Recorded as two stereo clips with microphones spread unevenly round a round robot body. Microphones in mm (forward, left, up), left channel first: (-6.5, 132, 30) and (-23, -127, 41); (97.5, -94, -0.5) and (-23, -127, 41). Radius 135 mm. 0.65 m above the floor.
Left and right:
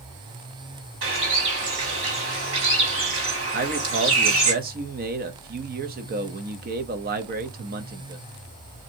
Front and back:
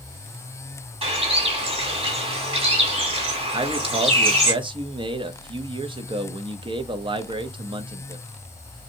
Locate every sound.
1.0 s a bird: 125° right, 2 m
3.5 s a man speaking: 115° right, 0.6 m